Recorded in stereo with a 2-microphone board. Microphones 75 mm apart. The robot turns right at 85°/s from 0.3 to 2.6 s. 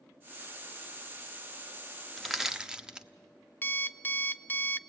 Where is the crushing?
5° left (ahead or behind), 0.7 m; by 3.1 s 10° right (ahead or behind), 0.7 m.